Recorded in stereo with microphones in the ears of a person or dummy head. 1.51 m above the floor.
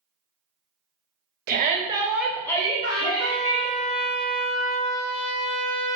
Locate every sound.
1.5 s a shout: 50° right (ahead or behind), 0.6 m; by 3.8 s 45° left (ahead or behind), 1.1 m
2.8 s a trumpet: 50° left (ahead or behind), 1.2 m